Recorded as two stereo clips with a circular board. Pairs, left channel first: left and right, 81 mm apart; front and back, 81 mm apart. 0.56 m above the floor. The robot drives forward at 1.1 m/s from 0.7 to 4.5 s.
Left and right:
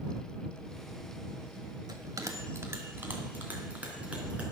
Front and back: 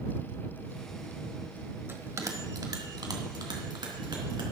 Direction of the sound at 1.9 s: 120° right.